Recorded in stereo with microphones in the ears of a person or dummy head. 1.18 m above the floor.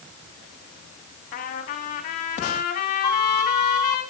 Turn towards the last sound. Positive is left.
turn(degrees=20)  # may be behind; listen again after turning